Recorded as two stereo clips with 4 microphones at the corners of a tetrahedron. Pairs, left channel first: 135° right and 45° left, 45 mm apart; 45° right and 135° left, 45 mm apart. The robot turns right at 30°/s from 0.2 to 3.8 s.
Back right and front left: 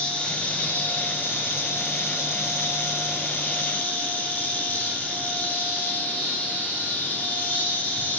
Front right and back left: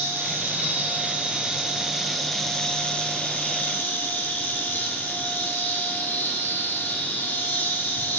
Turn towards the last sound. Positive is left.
turn(degrees=-90)